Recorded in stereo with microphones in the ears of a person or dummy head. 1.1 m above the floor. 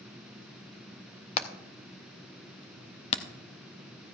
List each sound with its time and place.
1.4 s hammering: 35° left (ahead or behind), 0.8 m